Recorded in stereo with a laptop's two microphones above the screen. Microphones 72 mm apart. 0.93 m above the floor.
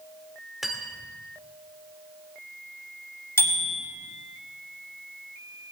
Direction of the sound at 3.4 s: 35° left (ahead or behind).